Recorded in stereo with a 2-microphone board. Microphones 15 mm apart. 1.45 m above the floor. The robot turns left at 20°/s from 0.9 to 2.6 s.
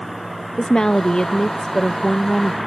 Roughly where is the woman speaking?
Ahead left.